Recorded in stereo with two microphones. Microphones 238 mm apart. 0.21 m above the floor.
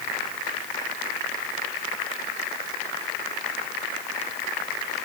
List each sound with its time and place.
Only background noise.